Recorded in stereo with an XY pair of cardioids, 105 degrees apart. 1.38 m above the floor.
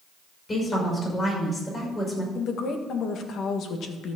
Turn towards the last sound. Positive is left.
turn(degrees=65)